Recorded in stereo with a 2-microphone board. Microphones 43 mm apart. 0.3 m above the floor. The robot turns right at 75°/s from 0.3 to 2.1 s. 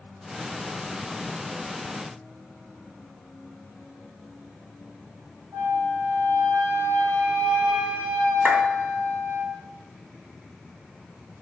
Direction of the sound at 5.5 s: 70° right (ahead or behind).